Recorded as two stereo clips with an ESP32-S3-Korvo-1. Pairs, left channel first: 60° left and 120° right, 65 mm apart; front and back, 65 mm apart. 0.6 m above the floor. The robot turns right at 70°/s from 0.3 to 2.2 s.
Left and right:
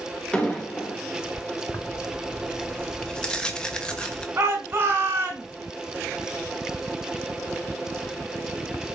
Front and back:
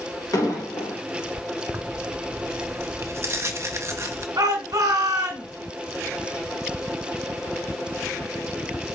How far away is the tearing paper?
About 0.9 m.